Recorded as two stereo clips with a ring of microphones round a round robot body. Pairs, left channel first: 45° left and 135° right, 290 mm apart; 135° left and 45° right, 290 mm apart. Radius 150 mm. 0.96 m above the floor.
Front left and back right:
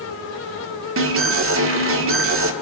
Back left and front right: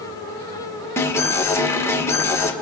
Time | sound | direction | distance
1.0 | an alarm | 145° right | 1.8 m